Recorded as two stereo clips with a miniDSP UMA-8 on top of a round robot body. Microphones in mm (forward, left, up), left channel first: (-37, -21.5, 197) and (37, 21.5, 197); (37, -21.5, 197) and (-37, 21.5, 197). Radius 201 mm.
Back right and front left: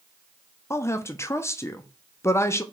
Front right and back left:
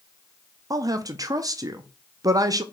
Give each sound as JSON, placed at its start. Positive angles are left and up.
{"t": 0.7, "sound": "a woman speaking", "azimuth_deg": 170, "distance_m": 0.7}